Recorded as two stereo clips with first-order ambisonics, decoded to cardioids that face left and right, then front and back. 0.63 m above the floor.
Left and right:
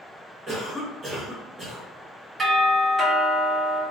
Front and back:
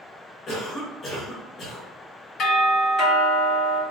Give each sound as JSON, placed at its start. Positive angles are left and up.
{"t": 0.5, "sound": "a cough", "azimuth_deg": -30, "distance_m": 1.1}
{"t": 2.4, "sound": "a doorbell", "azimuth_deg": -20, "distance_m": 1.9}